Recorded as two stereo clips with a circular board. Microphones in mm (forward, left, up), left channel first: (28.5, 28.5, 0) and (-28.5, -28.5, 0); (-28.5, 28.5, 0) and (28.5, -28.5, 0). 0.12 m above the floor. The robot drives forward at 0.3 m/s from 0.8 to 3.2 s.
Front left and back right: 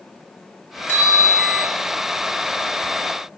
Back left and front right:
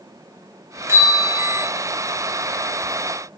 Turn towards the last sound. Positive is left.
turn(degrees=-115)